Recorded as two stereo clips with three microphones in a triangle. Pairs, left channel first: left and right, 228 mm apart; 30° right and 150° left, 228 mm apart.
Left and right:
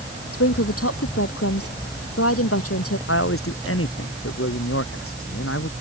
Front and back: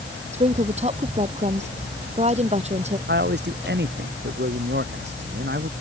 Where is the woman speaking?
90° left.